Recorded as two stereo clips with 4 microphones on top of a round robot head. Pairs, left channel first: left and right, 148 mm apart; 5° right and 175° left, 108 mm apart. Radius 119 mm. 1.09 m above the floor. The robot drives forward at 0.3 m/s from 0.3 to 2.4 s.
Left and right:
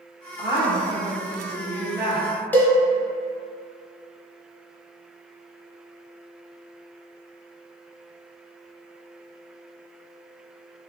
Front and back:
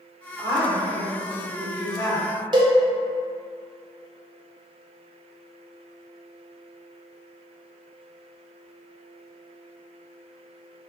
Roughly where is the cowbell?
Behind.